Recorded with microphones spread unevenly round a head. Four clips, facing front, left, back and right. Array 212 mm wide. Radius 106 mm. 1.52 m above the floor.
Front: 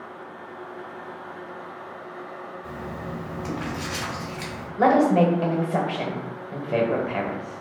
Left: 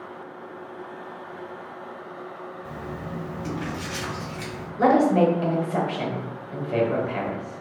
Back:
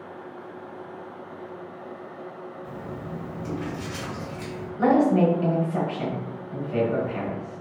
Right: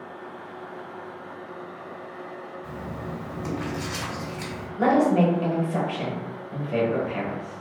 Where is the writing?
20° right, 1.7 m.